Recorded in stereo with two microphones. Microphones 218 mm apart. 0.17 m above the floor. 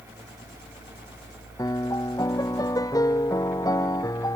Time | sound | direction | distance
1.6 | a piano | 15° left (ahead or behind) | ?